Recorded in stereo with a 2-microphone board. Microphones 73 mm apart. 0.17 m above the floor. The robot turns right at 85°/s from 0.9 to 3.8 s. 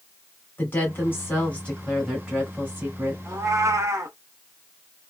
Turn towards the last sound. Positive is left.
turn(degrees=-70)